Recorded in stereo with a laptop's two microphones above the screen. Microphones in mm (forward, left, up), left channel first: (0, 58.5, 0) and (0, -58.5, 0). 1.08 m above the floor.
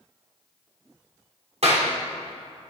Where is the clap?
65° right (ahead or behind), 3 m.